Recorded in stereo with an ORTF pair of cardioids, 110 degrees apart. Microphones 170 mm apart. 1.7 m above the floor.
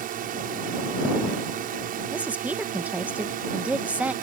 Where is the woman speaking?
10° right.